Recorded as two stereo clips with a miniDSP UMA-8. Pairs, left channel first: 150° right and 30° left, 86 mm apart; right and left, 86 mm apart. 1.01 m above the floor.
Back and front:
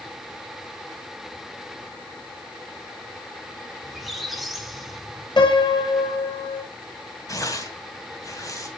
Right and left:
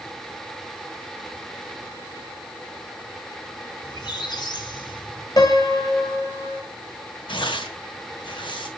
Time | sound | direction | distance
3.8 | a squeak | 60° right | 1.8 m
5.4 | a piano | 130° right | 1.8 m
7.3 | tearing paper | 100° right | 2 m